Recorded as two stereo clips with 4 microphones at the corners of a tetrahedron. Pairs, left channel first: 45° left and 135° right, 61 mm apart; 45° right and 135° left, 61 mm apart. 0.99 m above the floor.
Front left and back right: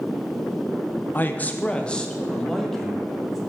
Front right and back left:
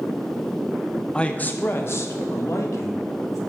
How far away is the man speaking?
About 0.7 m.